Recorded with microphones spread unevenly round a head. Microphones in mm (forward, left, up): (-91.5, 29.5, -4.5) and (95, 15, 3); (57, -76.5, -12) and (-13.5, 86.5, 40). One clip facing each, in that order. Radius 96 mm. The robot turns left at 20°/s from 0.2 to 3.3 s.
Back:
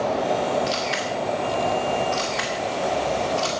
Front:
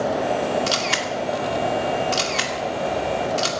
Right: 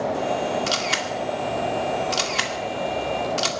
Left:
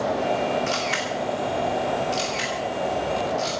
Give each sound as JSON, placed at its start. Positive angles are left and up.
{"t": 0.7, "sound": "a camera shutter", "azimuth_deg": -20, "distance_m": 2.0}